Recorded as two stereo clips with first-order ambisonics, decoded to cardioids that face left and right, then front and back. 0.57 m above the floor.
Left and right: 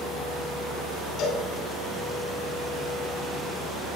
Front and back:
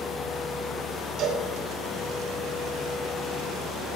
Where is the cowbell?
135° left, 4 m.